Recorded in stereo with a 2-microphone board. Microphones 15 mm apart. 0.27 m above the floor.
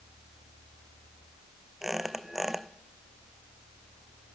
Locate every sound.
1.8 s a squeak: 30° right (ahead or behind), 0.8 m